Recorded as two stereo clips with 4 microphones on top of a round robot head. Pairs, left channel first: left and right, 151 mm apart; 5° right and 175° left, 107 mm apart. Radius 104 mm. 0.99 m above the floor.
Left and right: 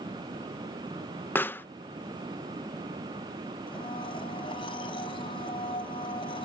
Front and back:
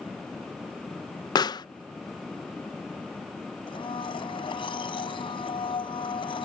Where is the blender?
30° left.